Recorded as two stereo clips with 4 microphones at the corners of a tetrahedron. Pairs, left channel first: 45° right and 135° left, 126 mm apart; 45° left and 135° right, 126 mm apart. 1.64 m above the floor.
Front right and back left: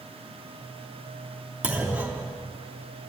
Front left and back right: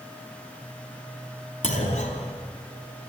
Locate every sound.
1.6 s a clunk: 55° left, 3 m